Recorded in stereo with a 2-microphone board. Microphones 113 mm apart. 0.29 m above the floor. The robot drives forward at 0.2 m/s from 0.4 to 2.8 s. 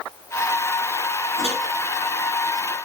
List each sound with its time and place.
1.4 s a microwave: 60° right (ahead or behind), 1.6 m